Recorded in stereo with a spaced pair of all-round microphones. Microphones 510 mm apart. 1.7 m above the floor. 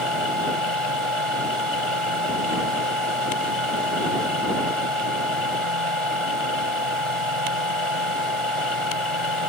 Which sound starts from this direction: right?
A machine running, at 0.0 s.